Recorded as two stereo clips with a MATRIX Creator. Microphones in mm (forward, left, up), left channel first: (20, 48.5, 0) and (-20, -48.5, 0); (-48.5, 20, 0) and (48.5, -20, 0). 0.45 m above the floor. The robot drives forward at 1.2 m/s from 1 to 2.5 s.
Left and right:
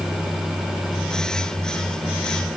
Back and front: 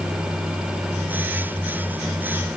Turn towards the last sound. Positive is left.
No sound to turn to.